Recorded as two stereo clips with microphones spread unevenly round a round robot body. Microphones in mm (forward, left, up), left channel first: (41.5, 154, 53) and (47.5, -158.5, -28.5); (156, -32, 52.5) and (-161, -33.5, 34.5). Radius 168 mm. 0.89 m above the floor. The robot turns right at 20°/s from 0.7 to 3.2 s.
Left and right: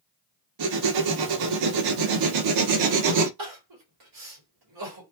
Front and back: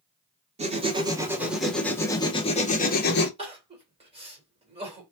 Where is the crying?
110° right, 2 m.